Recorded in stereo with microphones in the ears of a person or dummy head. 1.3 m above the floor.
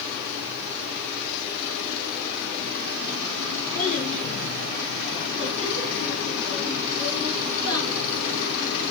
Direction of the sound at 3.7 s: 40° left (ahead or behind).